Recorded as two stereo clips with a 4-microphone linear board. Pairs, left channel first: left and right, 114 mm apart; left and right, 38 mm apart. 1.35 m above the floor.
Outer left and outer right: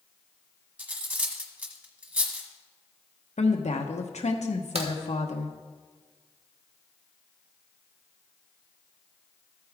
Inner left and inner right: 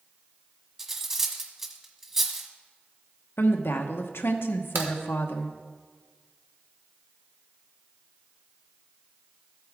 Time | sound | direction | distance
0.8 | cutlery clinking | 15° right (ahead or behind) | 1.3 m
3.4 | a woman speaking | 85° left | 1.1 m
4.8 | a crack | 65° right (ahead or behind) | 1.7 m